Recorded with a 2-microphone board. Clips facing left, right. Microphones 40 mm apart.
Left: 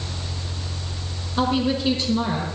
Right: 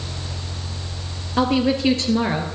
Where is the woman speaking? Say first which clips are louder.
Right 3 dB; 75° right (ahead or behind), 4 m; by 2.5 s 65° right (ahead or behind), 3.5 m.